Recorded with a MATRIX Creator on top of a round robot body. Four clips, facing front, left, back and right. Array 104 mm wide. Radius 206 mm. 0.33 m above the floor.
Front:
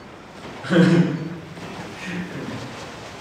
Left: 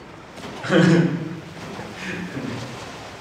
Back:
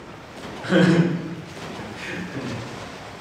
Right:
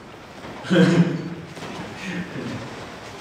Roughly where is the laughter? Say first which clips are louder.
Left 1 dB, front 1 dB; left.